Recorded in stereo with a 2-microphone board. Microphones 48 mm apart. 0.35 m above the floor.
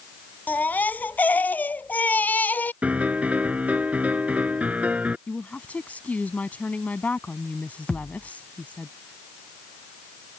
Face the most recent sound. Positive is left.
turn(degrees=20)  # may be behind; listen again after turning